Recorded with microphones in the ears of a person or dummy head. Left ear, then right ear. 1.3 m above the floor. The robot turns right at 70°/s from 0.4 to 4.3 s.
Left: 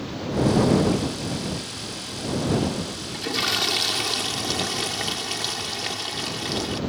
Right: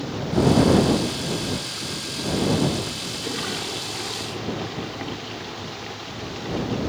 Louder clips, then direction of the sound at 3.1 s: Left 8 dB; 20° left.